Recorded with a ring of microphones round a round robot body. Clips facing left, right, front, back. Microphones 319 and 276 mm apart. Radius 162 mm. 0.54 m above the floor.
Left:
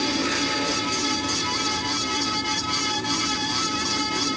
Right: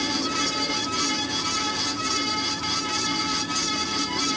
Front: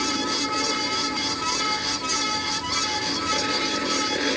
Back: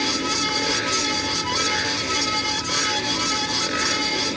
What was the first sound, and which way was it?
Only background noise.